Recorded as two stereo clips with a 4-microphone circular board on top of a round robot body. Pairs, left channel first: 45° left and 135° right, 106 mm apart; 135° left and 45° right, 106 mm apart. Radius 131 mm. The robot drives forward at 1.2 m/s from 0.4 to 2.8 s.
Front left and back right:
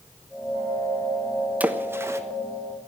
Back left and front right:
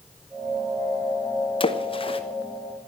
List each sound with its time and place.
1.6 s a splash: 150° left, 1.3 m; by 2.2 s 165° left, 1.8 m